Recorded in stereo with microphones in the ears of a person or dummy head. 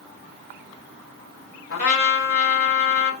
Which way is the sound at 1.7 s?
50° left (ahead or behind).